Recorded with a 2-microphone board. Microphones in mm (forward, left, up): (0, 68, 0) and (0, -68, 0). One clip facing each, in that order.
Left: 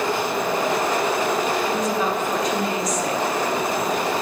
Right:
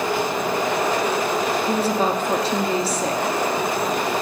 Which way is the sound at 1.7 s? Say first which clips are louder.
Right 2 dB; 30° right (ahead or behind).